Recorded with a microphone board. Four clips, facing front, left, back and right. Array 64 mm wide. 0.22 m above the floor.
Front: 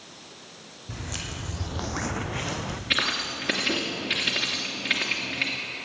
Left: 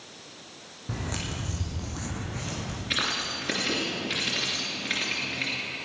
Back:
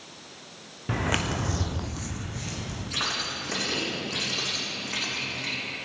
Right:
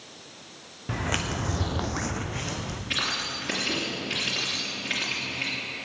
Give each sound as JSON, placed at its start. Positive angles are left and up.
{"t": 0.9, "sound": "footsteps", "azimuth_deg": -155, "distance_m": 1.4}
{"t": 2.9, "sound": "keys jangling", "azimuth_deg": 10, "distance_m": 3.0}